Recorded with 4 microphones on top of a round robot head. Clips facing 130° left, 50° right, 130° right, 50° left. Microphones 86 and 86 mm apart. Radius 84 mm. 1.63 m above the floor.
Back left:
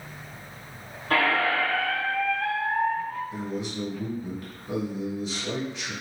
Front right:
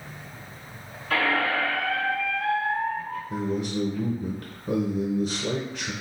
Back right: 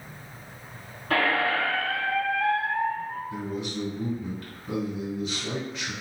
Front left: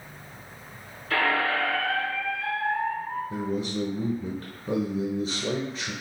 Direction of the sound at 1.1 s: 175° left.